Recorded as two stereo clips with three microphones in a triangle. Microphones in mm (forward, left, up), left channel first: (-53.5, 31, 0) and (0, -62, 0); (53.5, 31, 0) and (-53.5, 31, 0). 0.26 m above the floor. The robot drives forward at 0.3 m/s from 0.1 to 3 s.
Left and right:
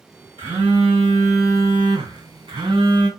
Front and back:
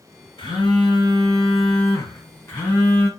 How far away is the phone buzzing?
About 1.8 m.